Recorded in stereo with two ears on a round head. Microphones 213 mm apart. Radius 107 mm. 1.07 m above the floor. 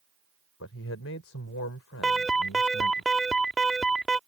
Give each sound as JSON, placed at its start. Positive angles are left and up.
{"t": 0.6, "sound": "a man speaking", "side_deg": 65}
{"t": 2.0, "sound": "an alarm", "side_deg": 0}